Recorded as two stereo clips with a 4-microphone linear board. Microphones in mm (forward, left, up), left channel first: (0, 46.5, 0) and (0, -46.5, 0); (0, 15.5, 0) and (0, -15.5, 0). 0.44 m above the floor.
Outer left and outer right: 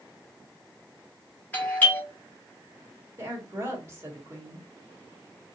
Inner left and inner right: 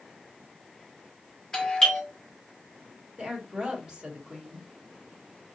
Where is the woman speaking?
30° right (ahead or behind), 1.4 m.